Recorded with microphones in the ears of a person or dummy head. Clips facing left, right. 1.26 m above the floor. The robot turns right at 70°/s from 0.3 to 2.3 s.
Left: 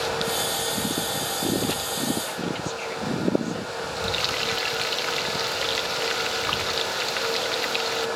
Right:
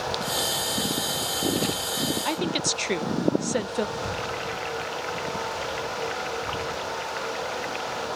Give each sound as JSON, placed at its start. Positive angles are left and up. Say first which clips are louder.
{"t": 2.2, "sound": "a woman speaking", "louder": "right 2 dB", "side_deg": -70}
{"t": 4.0, "sound": "frying", "louder": "left 1 dB", "side_deg": 55}